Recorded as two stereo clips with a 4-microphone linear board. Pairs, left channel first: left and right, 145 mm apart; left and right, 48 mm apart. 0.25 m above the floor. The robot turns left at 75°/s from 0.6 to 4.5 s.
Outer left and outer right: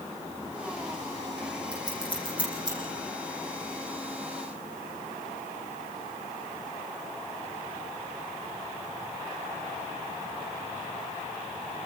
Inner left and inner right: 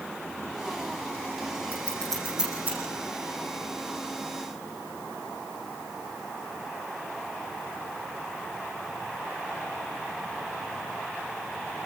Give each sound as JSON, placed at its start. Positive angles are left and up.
{"t": 1.7, "sound": "scissors", "side_deg": 40, "distance_m": 9.5}